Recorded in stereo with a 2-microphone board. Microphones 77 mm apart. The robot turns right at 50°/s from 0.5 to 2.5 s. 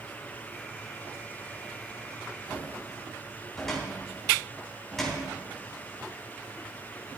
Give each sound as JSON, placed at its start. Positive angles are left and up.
{"t": 2.5, "sound": "a cupboard door", "side_deg": 5, "distance_m": 3.5}